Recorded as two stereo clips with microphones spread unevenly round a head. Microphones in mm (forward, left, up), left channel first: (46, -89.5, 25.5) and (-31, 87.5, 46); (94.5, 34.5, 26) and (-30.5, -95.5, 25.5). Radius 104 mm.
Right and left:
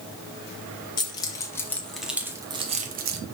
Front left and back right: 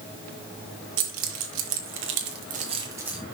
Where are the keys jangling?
140° right, 1.3 m; by 3.2 s 140° left, 0.8 m.